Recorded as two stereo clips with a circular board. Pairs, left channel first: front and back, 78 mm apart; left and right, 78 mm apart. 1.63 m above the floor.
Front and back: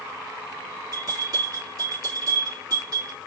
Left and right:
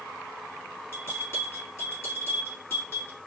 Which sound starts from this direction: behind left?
A bell, at 0.9 s.